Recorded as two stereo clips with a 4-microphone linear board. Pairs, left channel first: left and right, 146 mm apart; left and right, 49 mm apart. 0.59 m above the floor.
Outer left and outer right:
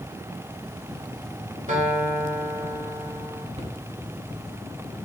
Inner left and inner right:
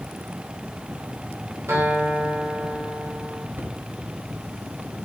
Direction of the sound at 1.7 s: 60° right (ahead or behind).